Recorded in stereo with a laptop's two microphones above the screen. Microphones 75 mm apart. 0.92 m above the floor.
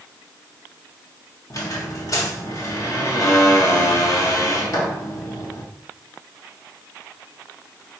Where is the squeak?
45° left (ahead or behind), 1.3 m.